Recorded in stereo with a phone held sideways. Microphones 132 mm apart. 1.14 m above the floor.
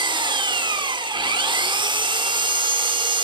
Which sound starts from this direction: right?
An engine running, at 0.0 s.